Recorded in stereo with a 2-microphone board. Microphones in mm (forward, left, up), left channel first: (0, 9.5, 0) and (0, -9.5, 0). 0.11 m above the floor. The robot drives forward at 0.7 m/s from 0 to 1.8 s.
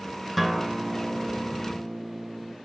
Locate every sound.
0.4 s a guitar: centre (ahead or behind), 0.7 m